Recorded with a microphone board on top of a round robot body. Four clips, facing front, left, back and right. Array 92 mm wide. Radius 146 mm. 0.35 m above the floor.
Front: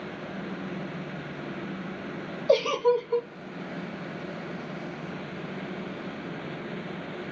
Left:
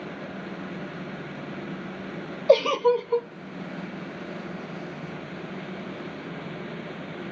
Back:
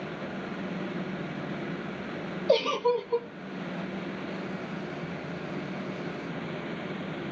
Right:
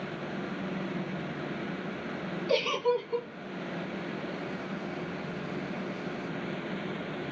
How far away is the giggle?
About 0.7 m.